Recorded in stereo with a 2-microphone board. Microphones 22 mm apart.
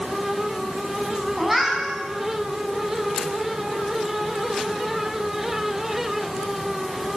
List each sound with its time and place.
1.4 s a cat meowing: 10° right (ahead or behind), 5.5 m